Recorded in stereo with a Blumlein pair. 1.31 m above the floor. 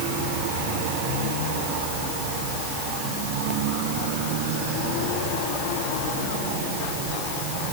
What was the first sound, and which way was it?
Only background noise.